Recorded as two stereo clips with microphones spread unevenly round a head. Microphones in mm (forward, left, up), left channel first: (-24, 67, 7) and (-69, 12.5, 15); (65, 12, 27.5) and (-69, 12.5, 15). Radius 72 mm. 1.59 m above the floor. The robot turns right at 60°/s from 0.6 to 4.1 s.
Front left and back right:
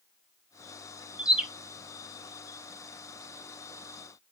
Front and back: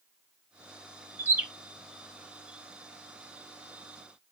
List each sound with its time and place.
1.2 s a bird: 120° right, 0.5 m; by 1.5 s 105° right, 0.5 m